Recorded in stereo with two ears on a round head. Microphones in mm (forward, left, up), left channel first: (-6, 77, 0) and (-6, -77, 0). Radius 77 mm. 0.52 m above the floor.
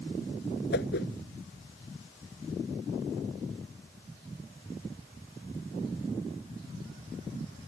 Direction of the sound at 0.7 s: 70° left (ahead or behind).